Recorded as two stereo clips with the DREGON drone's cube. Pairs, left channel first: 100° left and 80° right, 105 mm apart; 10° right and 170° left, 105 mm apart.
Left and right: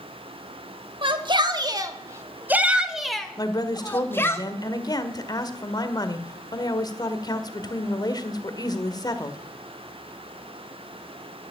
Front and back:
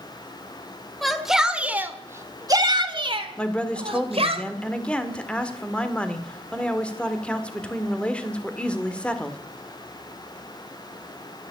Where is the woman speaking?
65° left, 1.8 m.